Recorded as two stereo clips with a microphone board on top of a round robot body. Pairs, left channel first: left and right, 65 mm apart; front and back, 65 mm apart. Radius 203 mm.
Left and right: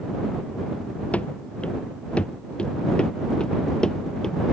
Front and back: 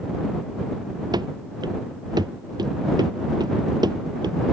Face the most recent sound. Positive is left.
turn(degrees=170)